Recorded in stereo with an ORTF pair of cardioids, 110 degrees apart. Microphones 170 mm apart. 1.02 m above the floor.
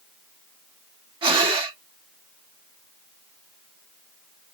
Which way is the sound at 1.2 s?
30° right.